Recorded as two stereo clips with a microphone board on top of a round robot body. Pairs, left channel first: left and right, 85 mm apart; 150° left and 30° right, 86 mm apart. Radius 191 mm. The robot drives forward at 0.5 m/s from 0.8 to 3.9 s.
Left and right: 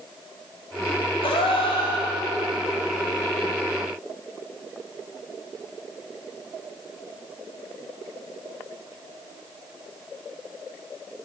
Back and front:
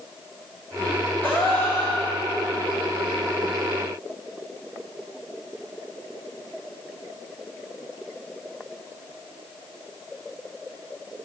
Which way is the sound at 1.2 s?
80° left.